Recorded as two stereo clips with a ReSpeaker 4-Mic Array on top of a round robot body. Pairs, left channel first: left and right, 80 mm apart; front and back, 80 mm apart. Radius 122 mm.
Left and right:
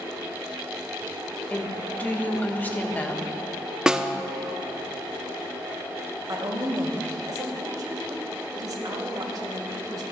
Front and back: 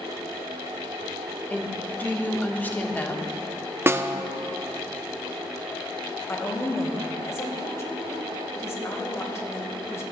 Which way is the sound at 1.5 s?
45° left.